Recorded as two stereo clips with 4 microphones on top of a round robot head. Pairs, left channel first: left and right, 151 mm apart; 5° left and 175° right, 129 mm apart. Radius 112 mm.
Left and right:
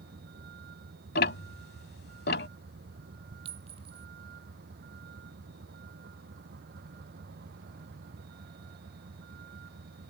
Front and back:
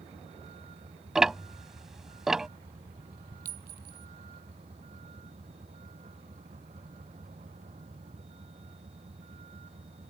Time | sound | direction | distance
0.0 | a vehicle | 120° right | ?
1.1 | ticking | 100° left | ?
3.5 | a clink | 150° right | ?